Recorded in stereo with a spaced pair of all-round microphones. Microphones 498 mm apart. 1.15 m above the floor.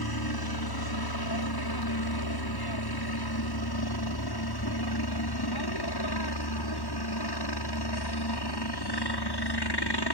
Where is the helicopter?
50° left (ahead or behind); by 10.1 s 55° left (ahead or behind).